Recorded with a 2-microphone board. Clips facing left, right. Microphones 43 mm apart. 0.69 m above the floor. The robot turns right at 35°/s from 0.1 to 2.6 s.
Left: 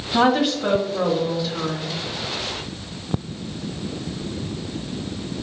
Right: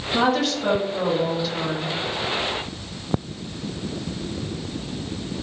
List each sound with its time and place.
0.1 s a woman speaking: 150° left, 0.7 m; by 1.9 s 145° right, 0.7 m